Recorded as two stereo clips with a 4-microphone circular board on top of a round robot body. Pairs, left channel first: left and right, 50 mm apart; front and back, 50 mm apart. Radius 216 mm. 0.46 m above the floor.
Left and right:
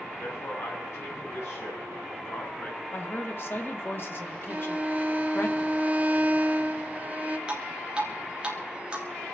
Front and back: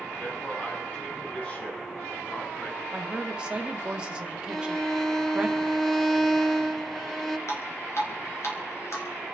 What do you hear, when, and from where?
0.2 s a man speaking: 70° left, 6.5 m; by 2.8 s 55° left, 8 m
2.9 s a woman speaking: 115° left, 1.9 m
4.5 s a violin: 80° right, 1.3 m
7.5 s dripping: 20° right, 3.5 m